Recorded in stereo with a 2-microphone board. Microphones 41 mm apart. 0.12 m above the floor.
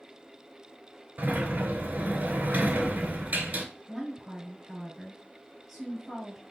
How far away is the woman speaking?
About 1.4 m.